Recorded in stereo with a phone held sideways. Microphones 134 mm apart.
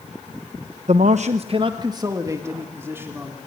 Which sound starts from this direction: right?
A man speaking, at 0.9 s.